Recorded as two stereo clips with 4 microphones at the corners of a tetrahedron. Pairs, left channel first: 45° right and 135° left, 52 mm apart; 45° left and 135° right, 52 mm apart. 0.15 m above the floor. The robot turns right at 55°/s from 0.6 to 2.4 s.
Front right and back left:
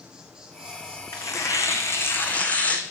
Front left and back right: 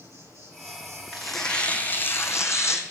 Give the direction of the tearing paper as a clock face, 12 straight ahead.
2 o'clock.